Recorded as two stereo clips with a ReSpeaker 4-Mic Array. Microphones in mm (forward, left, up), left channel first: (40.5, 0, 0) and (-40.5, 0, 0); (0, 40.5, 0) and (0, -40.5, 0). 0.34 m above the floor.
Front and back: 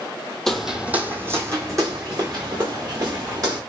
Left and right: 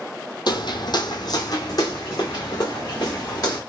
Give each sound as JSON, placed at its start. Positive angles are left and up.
{"t": 0.5, "sound": "footsteps", "azimuth_deg": 85, "distance_m": 0.6}